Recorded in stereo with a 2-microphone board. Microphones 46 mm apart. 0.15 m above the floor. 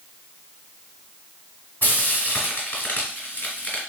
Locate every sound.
1.8 s frying: 40° left (ahead or behind), 1.7 m